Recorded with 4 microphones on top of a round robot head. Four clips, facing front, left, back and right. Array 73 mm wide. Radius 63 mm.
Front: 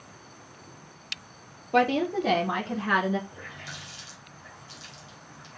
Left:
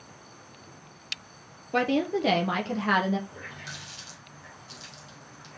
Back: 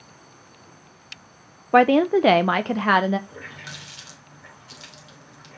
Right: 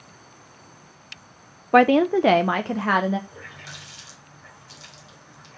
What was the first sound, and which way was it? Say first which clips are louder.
A woman speaking: right 9 dB, back 8 dB; 130° right.